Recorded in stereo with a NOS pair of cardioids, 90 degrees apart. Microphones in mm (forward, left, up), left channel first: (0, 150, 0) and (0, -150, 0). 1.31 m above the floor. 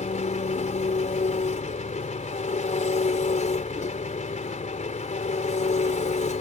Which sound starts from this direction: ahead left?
An engine running, at 0.0 s.